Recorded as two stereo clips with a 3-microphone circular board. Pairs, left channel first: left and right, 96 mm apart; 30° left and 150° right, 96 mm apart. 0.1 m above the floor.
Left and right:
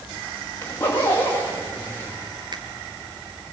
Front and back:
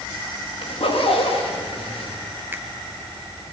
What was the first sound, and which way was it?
A zipper, 25° left.